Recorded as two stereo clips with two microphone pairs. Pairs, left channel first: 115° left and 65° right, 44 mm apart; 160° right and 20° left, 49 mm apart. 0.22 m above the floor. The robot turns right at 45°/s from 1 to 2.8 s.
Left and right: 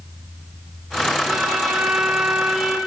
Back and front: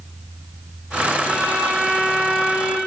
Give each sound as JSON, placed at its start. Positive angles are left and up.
{"t": 1.3, "sound": "a violin", "azimuth_deg": -115, "distance_m": 1.4}